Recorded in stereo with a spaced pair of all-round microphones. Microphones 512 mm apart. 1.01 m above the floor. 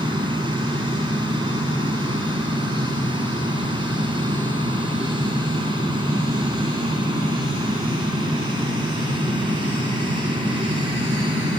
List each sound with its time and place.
0.0 s a fan: 10° right (ahead or behind)